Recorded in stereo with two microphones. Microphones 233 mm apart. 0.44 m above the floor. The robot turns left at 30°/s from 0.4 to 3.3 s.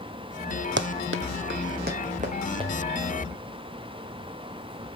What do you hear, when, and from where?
0.8 s running footsteps: 55° right (ahead or behind), 0.6 m; by 2.7 s 20° right (ahead or behind), 2.5 m